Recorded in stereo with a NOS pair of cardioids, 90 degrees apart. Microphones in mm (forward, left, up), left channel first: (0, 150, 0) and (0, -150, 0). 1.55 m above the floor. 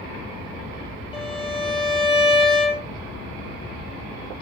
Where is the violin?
20° left, 3 m.